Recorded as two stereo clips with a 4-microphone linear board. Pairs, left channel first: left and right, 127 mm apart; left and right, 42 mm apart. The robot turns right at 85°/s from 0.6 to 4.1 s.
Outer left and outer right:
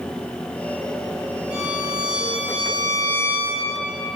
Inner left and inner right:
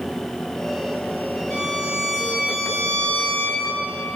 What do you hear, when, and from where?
1.5 s a violin: 55° left, 3 m; by 3.7 s 115° right, 3 m